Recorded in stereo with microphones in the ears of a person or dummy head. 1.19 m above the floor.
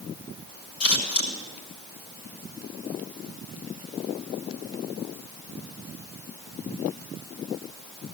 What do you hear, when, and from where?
0.8 s scissors: 70° left (ahead or behind), 5 m